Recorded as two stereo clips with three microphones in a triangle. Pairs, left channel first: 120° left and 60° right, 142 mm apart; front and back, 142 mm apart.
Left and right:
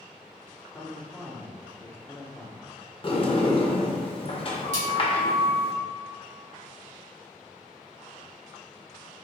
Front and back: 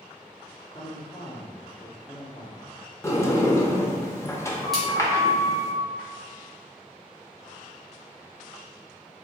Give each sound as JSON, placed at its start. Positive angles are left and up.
{"t": 0.7, "sound": "a man speaking", "azimuth_deg": 45, "distance_m": 1.2}
{"t": 3.0, "sound": "a sliding door", "azimuth_deg": 70, "distance_m": 0.6}
{"t": 4.7, "sound": "a splash", "azimuth_deg": -90, "distance_m": 1.9}